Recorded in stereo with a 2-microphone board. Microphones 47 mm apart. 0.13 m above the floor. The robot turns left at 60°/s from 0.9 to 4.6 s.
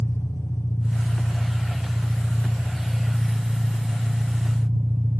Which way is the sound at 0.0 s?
95° left.